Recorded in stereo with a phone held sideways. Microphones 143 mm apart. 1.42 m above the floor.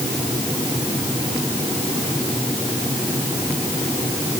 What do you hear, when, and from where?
Only background noise.